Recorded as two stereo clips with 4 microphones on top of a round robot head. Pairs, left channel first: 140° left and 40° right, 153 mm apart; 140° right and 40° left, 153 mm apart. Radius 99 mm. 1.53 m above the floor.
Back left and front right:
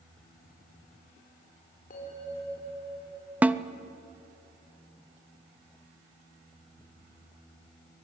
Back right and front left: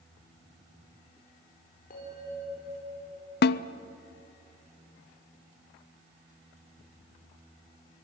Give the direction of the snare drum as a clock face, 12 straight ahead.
4 o'clock.